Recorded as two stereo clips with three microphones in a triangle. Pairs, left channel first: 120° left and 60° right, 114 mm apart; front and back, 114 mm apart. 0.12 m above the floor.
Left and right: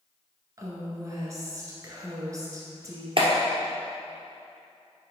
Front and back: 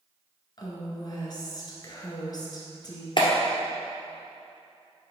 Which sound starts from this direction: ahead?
A woman speaking, at 0.6 s.